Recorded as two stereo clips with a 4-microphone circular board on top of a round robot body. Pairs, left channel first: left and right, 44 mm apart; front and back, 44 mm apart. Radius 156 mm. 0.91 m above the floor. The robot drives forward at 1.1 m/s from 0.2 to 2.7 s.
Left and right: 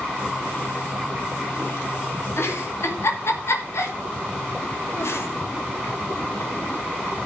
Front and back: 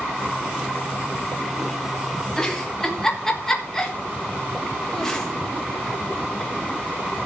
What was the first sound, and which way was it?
A giggle, 70° left.